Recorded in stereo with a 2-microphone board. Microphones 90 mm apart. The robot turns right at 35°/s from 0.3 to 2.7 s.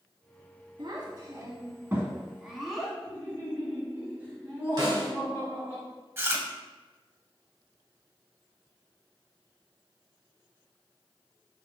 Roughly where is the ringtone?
I don't hear a ringtone.